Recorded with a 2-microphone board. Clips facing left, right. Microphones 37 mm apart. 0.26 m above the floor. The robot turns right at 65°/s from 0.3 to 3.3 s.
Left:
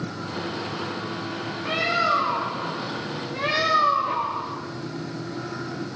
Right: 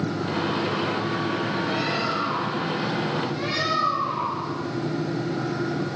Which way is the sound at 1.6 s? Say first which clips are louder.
Left 3 dB; 55° left.